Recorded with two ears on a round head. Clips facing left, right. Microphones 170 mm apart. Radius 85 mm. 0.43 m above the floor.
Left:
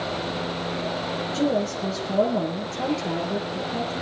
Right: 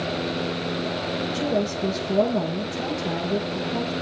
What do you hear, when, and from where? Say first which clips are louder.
1.3 s a woman speaking: left 2 dB; 5° left (ahead or behind), 6.5 m